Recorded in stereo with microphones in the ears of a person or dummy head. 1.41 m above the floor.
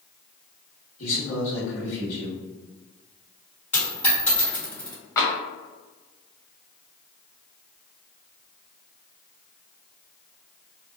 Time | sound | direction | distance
1.0 | a man speaking | 65° left (ahead or behind) | 1.3 m
3.7 | a dropped coin | 15° left (ahead or behind) | 1.3 m
5.2 | tapping | 15° left (ahead or behind) | 0.6 m